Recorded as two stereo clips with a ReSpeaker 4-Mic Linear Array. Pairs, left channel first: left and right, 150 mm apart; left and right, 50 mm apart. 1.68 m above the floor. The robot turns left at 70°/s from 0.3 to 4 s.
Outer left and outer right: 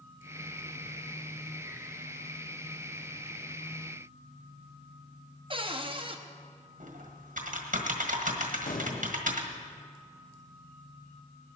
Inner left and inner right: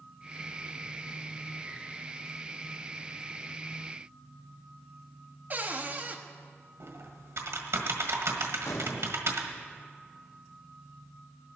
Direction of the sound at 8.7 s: 75° left (ahead or behind).